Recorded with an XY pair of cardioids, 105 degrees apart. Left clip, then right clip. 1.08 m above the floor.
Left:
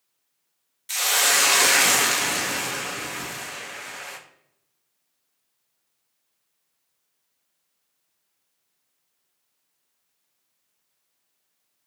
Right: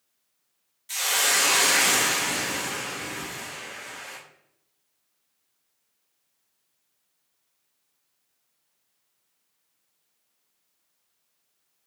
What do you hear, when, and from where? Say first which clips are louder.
0.9 s a hiss: left 3 dB; 45° left, 0.6 m